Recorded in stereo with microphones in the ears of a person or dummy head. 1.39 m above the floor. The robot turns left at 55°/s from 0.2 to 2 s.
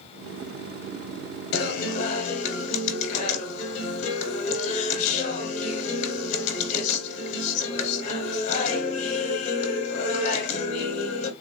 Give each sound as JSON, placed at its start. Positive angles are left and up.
{"t": 1.5, "sound": "a guitar", "side_deg": 60, "distance_m": 1.0}